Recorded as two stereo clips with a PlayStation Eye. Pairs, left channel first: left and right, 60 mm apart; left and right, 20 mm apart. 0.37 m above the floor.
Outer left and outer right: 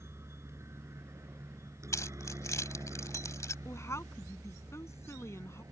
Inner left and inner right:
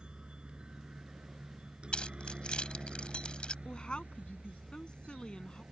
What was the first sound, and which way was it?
A helicopter, 45° right (ahead or behind).